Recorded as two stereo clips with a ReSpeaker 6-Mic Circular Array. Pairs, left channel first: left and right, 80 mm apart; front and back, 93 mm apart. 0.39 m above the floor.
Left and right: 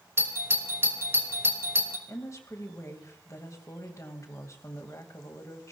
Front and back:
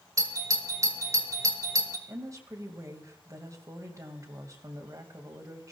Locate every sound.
0.2 s a doorbell: 140° right, 2.5 m
2.1 s a woman speaking: 135° left, 2.5 m